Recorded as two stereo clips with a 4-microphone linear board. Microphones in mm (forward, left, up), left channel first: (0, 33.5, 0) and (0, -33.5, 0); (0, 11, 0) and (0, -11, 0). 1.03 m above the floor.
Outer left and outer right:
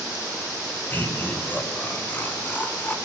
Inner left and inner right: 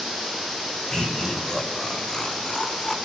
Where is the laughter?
25° left (ahead or behind), 6.5 m.